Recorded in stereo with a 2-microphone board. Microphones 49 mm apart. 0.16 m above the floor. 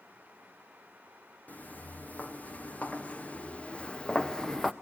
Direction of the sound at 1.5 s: 35° left (ahead or behind).